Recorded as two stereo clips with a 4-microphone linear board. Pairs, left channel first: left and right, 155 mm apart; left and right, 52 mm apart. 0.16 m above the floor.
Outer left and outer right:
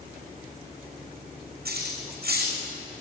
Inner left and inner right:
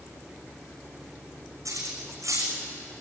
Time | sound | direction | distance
1.6 | cutlery clinking | 75° right (ahead or behind) | 6 m